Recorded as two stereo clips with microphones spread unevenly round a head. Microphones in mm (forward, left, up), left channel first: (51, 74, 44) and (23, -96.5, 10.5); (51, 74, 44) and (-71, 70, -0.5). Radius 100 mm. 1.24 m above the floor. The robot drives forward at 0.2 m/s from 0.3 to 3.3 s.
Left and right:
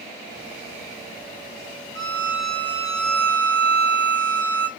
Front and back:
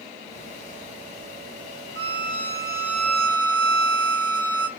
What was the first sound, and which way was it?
A violin, 130° right.